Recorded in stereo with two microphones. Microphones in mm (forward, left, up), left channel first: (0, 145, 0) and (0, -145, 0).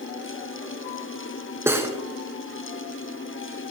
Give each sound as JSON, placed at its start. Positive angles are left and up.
{"t": 1.7, "sound": "cutlery clinking", "side_deg": -10, "distance_m": 1.6}